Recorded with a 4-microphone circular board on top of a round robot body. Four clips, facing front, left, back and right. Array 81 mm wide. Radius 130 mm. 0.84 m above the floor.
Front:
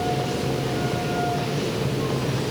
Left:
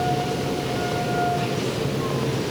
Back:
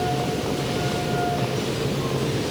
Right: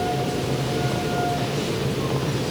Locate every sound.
Only background noise.